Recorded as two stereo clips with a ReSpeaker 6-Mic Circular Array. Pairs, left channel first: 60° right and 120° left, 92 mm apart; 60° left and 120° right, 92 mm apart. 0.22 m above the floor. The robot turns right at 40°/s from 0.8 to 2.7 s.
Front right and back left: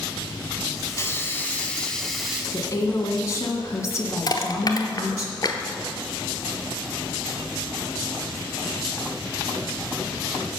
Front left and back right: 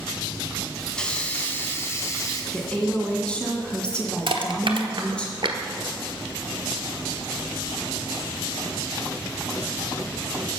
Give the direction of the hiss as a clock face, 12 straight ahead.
1 o'clock.